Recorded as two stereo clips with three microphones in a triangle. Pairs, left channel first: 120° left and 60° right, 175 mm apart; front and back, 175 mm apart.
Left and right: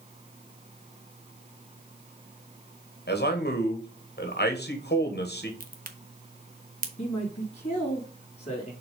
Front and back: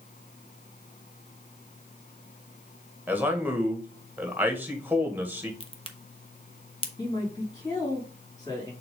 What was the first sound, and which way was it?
A man speaking, 100° left.